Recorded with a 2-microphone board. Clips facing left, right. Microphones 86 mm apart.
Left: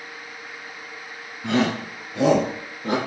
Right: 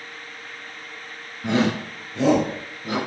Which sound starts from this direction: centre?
A shout, at 1.4 s.